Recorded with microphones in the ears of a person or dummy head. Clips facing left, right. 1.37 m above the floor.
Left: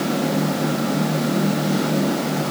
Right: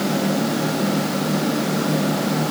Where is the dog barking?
I don't hear a dog barking.